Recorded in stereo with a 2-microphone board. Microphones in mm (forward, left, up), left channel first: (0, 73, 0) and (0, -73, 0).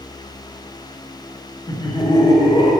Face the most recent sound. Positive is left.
turn(degrees=35)  # may be behind; listen again after turning